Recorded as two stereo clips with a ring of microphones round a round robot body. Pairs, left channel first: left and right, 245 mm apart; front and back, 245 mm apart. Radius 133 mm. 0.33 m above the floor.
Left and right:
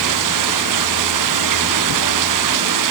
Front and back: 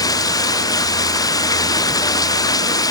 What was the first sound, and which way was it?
Running water, 75° right.